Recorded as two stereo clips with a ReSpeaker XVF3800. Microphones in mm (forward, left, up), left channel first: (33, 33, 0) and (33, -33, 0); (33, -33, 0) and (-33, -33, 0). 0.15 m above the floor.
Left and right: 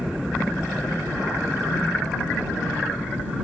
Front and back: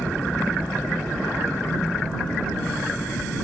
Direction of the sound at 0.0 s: 10° right.